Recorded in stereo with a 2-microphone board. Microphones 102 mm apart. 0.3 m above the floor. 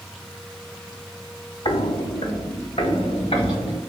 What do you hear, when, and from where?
1.6 s footsteps: 65° left (ahead or behind), 0.7 m; by 3.8 s 85° left, 2.5 m